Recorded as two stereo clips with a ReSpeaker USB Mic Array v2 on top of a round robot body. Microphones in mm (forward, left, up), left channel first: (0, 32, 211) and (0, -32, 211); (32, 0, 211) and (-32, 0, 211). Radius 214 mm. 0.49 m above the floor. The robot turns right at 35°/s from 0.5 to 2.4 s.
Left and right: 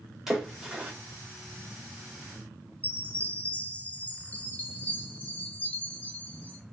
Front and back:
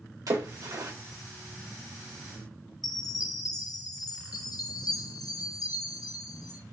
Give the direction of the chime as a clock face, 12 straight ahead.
11 o'clock.